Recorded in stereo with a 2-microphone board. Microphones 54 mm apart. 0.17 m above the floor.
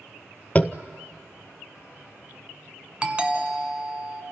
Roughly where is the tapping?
Left.